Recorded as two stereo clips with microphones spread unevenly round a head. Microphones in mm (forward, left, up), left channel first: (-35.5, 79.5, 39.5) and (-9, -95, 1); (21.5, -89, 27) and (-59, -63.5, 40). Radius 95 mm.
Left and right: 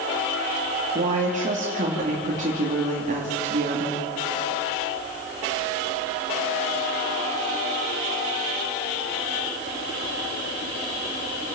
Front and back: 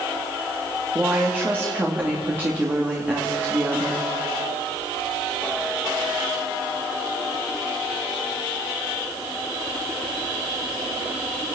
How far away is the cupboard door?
I don't hear a cupboard door.